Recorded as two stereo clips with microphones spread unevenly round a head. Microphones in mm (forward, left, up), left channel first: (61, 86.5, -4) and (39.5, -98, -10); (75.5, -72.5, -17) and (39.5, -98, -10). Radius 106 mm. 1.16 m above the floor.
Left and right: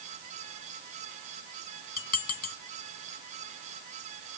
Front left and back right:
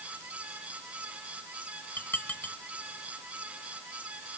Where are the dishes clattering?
115° left.